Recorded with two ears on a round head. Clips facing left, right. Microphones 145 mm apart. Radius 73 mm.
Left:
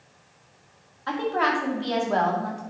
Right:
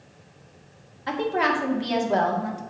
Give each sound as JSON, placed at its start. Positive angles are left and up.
{"t": 1.1, "sound": "a woman speaking", "side_deg": -20, "distance_m": 2.0}